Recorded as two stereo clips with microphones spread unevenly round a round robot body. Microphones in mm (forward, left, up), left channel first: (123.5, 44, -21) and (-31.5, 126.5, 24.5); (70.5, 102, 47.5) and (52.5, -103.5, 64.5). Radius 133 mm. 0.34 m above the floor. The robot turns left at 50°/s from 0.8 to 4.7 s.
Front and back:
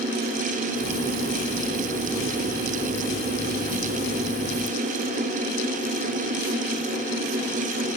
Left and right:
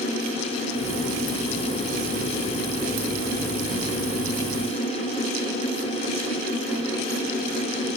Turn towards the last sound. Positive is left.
No sound to turn to.